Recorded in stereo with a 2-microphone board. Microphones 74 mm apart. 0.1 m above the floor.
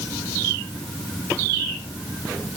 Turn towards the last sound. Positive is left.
No sound to turn to.